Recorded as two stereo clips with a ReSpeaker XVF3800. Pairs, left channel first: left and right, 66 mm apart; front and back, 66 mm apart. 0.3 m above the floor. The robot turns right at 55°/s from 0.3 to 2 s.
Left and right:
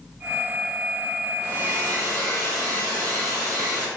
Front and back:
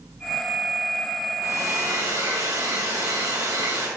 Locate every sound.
1.4 s a hair dryer: 135° left, 3.5 m; by 3.9 s 170° left, 3.5 m